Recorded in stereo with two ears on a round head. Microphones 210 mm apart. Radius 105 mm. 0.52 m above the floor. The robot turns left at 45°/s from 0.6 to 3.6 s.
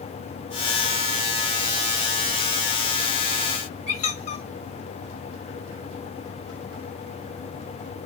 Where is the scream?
I don't hear a scream.